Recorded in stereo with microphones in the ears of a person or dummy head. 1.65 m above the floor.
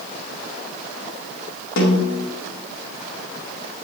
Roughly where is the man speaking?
I don't hear a man speaking.